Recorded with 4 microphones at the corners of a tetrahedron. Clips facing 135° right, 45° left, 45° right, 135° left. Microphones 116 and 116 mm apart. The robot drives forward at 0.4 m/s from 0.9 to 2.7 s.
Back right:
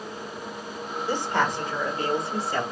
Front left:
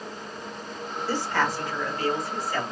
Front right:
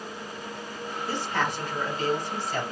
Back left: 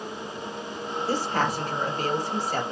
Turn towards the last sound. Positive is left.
turn(degrees=170)